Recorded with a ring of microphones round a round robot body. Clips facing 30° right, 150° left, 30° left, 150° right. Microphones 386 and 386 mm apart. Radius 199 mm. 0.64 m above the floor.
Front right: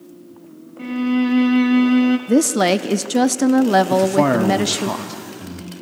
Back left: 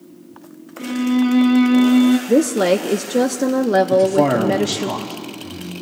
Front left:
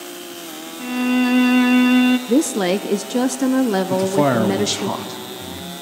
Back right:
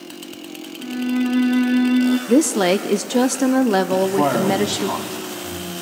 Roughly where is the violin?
Ahead left.